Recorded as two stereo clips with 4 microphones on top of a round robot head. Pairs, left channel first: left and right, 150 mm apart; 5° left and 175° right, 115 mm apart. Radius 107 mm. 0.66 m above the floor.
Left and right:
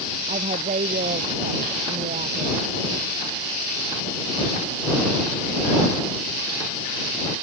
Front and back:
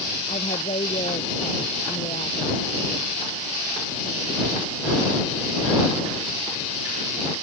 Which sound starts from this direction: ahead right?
A woman speaking, at 0.3 s.